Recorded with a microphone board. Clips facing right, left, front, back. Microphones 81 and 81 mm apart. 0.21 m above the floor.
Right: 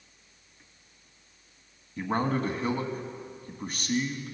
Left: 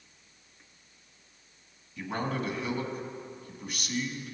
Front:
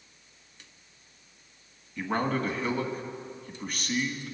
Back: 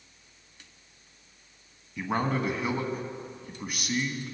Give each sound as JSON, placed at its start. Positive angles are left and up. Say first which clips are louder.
{"t": 2.0, "sound": "a man speaking", "louder": "right 5 dB, even", "azimuth_deg": -105, "distance_m": 1.3}